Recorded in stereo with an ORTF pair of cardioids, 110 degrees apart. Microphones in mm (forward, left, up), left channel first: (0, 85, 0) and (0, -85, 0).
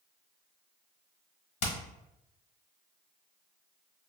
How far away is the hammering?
About 1.1 m.